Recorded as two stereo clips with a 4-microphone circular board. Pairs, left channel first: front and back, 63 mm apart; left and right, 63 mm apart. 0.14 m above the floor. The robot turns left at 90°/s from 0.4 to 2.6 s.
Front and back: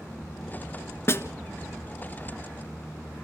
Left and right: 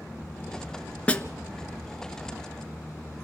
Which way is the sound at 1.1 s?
25° left.